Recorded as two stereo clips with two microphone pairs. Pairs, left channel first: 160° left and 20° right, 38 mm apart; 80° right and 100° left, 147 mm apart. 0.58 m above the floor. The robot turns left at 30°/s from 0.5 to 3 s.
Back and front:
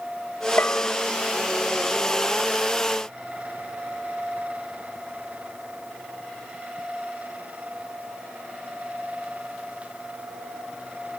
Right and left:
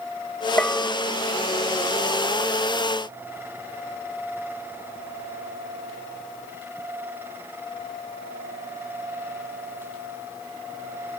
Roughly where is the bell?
Behind.